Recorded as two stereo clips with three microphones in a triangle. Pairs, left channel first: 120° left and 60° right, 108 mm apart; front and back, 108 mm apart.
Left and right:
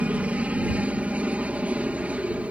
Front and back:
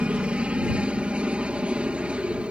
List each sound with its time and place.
0.0 s a helicopter: 120° right